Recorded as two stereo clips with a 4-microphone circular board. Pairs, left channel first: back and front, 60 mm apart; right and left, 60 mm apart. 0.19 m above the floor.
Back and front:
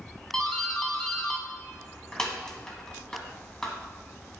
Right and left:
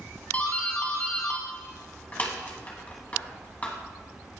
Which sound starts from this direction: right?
A doorbell, at 0.3 s.